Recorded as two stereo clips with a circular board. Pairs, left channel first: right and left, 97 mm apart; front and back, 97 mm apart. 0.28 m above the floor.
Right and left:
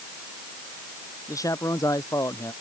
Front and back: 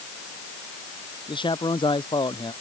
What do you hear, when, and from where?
1.3 s a man speaking: 35° right